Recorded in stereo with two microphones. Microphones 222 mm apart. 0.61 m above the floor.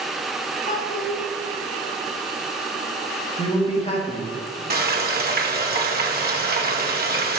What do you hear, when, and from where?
0.7 s a child speaking: 40° left (ahead or behind), 1.6 m
3.4 s a man speaking: 30° left (ahead or behind), 0.9 m
4.7 s frying: 45° right (ahead or behind), 0.7 m